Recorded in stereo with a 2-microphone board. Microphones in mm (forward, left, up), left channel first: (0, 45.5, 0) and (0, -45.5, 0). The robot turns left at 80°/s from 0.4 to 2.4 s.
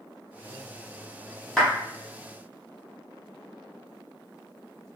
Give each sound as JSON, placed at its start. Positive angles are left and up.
{"t": 1.6, "sound": "a clap", "side_deg": 5, "distance_m": 1.0}